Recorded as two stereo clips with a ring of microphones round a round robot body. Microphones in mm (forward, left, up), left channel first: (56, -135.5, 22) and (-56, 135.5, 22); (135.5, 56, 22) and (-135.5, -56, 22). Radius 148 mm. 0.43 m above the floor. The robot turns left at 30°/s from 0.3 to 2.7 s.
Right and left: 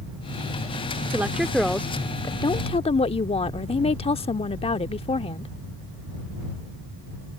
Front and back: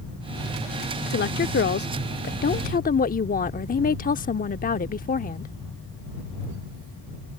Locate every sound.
1.1 s a woman speaking: 35° left; by 5.5 s 15° right